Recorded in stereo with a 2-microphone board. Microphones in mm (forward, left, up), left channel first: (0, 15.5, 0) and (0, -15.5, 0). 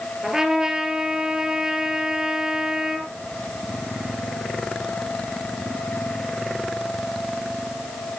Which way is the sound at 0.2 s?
20° right (ahead or behind).